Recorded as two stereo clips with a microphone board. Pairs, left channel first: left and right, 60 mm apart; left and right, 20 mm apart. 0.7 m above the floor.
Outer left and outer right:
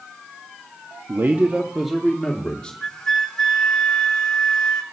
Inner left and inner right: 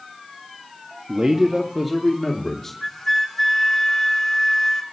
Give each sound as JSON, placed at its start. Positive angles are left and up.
{"t": 1.1, "sound": "a man speaking", "side_deg": -45, "distance_m": 0.9}
{"t": 2.8, "sound": "a flute", "side_deg": 10, "distance_m": 1.4}